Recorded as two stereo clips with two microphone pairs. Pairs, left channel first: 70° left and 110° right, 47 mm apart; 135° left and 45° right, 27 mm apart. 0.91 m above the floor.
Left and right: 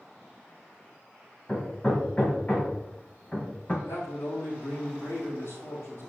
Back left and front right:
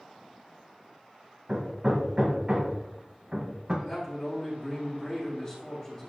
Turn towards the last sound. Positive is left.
turn(degrees=70)